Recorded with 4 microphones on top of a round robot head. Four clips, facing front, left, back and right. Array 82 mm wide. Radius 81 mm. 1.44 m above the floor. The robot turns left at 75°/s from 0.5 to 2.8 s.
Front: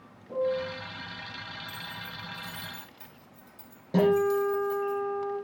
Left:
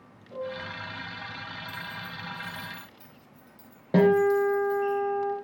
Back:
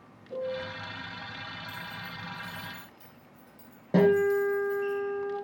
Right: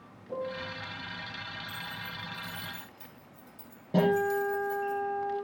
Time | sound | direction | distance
0.3 | a piano | 55° right | 3 m
1.7 | keys jangling | 65° left | 4 m
3.9 | a guitar | 115° left | 4 m